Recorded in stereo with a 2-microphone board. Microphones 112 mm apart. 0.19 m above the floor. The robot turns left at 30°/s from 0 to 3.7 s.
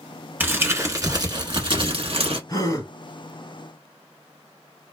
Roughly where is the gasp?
Left.